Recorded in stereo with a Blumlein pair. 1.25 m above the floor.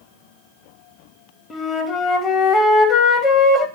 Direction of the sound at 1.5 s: 20° left.